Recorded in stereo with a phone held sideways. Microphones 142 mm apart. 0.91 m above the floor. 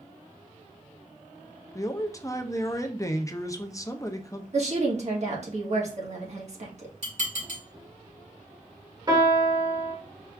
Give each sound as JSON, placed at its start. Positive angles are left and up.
{"t": 1.8, "sound": "a man speaking", "side_deg": 20, "distance_m": 0.5}
{"t": 4.5, "sound": "a woman speaking", "side_deg": -50, "distance_m": 1.4}
{"t": 7.0, "sound": "dishes clattering", "side_deg": -65, "distance_m": 3.0}
{"t": 9.1, "sound": "a piano", "side_deg": -35, "distance_m": 1.3}